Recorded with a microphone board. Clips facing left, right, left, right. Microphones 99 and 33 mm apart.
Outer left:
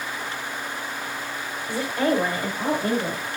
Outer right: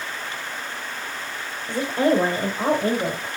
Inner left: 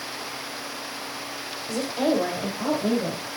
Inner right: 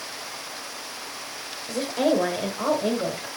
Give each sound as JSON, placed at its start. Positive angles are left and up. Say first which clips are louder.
{"t": 1.7, "sound": "a woman speaking", "louder": "outer right 3 dB, inner right 1 dB", "side_deg": -15, "distance_m": 1.2}